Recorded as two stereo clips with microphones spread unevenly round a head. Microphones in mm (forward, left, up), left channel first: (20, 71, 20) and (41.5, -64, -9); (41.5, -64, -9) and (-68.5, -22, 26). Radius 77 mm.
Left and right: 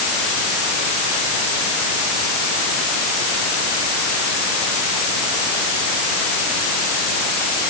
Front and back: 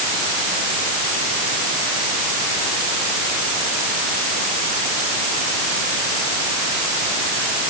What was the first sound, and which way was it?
Only background noise.